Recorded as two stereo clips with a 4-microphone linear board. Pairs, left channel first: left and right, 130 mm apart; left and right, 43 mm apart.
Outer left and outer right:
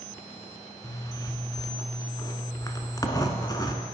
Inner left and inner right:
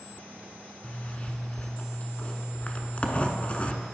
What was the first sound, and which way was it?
A zipper, 30° left (ahead or behind).